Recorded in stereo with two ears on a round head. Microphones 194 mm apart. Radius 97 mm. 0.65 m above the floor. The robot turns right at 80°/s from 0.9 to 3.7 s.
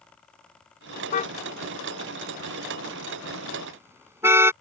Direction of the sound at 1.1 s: 40° left (ahead or behind).